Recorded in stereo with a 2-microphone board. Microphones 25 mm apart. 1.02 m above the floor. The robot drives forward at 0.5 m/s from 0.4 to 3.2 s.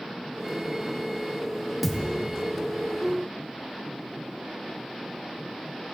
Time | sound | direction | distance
1.8 | a thud | 5° left (ahead or behind) | 0.6 m